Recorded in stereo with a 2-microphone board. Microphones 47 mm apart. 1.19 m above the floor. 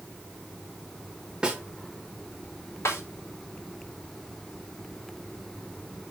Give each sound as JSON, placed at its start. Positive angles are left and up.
{"t": 1.4, "sound": "a snare drum", "side_deg": -15, "distance_m": 1.5}
{"t": 2.9, "sound": "a snare drum", "side_deg": 85, "distance_m": 3.5}